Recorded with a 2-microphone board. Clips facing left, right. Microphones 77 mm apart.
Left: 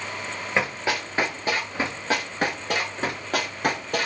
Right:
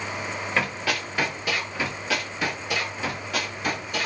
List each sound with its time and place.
0.6 s running footsteps: 20° left (ahead or behind), 2 m; by 4.1 s 55° left (ahead or behind), 2.5 m